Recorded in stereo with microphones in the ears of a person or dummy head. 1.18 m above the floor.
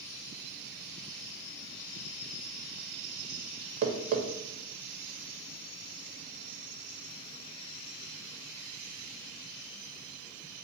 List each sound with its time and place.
3.8 s tapping: 55° right (ahead or behind), 0.6 m